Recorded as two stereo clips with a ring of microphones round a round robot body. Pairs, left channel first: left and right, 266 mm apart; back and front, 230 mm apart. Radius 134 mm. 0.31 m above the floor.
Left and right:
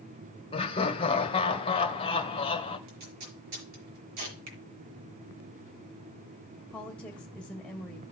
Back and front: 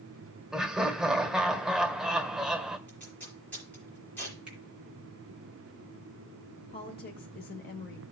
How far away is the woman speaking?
About 1.0 m.